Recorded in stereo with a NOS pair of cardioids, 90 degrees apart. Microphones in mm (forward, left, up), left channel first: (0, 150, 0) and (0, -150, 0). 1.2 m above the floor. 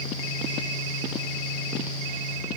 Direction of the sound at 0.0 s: 15° left.